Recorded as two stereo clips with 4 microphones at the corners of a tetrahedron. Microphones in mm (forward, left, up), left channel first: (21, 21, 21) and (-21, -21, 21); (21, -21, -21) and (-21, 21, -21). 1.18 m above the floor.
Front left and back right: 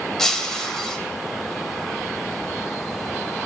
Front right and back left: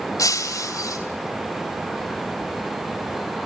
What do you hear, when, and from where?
0.2 s breaking glass: 40° right, 3 m